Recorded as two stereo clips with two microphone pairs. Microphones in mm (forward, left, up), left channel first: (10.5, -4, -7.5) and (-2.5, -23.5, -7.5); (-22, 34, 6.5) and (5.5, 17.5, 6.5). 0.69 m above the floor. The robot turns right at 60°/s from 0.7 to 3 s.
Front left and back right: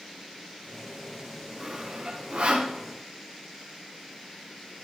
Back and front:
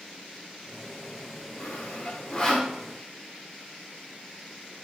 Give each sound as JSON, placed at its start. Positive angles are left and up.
{"t": 1.6, "sound": "sawing", "azimuth_deg": 165, "distance_m": 1.7}